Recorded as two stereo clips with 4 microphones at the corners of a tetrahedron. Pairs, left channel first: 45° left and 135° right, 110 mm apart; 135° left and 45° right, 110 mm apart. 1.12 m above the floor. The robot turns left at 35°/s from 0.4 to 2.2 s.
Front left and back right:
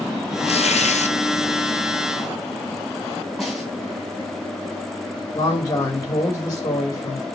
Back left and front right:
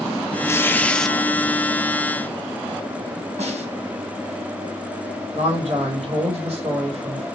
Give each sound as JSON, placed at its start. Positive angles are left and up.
{"t": 0.5, "sound": "tearing paper", "azimuth_deg": 70, "distance_m": 0.6}
{"t": 3.4, "sound": "a snare drum", "azimuth_deg": -45, "distance_m": 3.0}
{"t": 5.3, "sound": "a man speaking", "azimuth_deg": -10, "distance_m": 4.5}